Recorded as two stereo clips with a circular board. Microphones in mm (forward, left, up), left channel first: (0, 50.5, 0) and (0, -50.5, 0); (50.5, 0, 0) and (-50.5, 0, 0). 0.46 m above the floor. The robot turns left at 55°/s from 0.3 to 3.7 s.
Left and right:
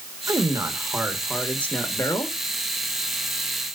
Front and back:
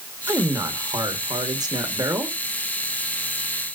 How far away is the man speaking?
About 1.5 m.